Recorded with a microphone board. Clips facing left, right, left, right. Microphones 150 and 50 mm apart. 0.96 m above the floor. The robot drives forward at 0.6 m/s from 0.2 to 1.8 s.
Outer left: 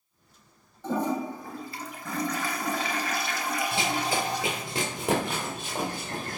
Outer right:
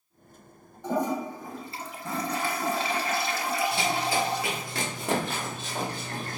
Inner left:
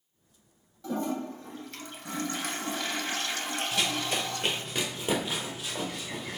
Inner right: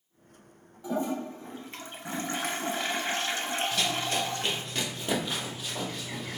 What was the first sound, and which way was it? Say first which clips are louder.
A toilet flushing: even, inner right 1 dB; 15° right (ahead or behind).